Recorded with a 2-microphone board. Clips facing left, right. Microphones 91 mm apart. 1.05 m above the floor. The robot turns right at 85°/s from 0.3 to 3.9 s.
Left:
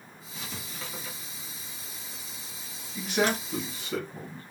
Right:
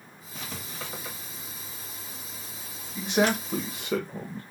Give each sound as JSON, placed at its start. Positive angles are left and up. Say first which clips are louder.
{"t": 0.3, "sound": "writing", "louder": "right 2 dB", "side_deg": -60, "distance_m": 1.5}
{"t": 3.0, "sound": "a man speaking", "louder": "right 3 dB", "side_deg": -15, "distance_m": 0.7}